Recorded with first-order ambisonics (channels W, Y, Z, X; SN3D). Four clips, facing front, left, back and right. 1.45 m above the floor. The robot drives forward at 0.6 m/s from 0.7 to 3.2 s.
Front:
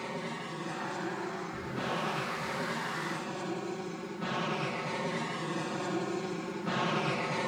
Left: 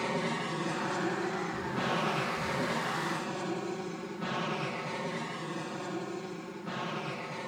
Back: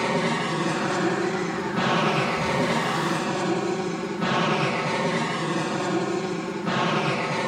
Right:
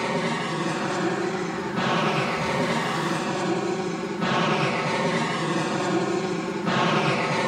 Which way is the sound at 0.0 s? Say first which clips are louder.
Right 7 dB, back 14 dB; 155° right.